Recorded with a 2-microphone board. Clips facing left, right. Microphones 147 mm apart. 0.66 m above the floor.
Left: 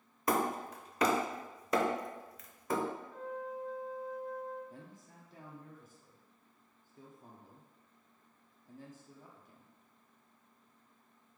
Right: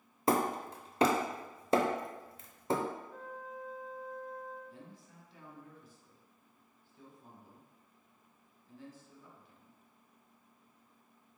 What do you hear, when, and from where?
0.3 s hammering: 30° right (ahead or behind), 0.6 m
3.1 s a flute: 5° left (ahead or behind), 1.0 m
4.7 s a man speaking: 45° left (ahead or behind), 0.9 m